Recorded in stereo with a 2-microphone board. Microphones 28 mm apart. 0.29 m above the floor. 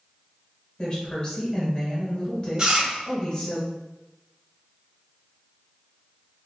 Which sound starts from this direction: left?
A woman speaking, at 0.8 s.